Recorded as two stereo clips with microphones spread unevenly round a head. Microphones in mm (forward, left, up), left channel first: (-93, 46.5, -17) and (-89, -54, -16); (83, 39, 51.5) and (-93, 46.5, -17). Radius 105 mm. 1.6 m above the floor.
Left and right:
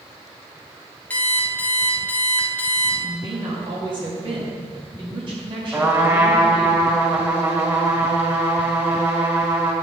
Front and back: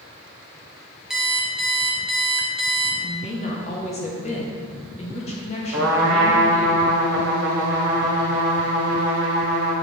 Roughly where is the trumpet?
Behind right.